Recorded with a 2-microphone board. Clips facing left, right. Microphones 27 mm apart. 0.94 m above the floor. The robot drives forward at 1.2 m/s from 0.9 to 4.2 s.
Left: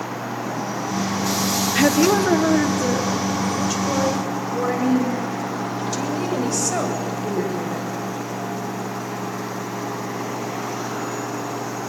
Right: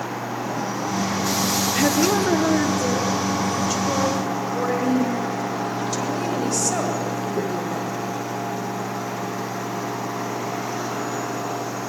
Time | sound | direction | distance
1.8 | a woman speaking | 20° left (ahead or behind) | 0.7 m